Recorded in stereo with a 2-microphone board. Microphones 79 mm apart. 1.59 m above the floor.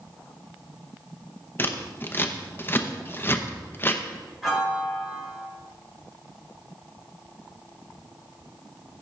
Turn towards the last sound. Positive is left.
turn(degrees=-5)  # may be behind; listen again after turning